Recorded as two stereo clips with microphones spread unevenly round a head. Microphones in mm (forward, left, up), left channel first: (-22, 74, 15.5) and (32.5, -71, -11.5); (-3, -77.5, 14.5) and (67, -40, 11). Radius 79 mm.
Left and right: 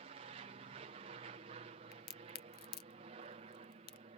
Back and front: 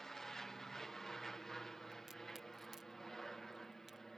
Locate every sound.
0.0 s an aircraft: 70° right
1.9 s a crack: 115° left